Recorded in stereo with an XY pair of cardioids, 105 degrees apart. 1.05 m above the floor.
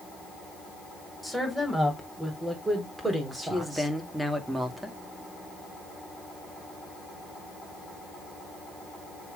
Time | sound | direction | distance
1.2 | a woman speaking | 5° right | 4.5 m
3.4 | a man speaking | 10° right | 2 m